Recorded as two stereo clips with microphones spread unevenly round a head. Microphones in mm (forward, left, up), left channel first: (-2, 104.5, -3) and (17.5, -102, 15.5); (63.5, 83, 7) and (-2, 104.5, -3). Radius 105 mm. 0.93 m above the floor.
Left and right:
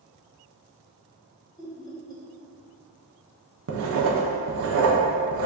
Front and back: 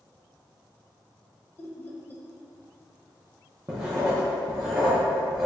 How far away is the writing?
About 0.6 m.